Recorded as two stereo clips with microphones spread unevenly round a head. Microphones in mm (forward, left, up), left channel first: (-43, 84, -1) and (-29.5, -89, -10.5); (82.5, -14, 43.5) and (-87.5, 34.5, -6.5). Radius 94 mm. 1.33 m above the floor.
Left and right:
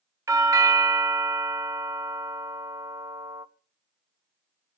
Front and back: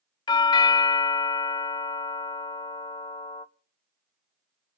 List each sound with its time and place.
0.3 s a doorbell: 90° right, 0.6 m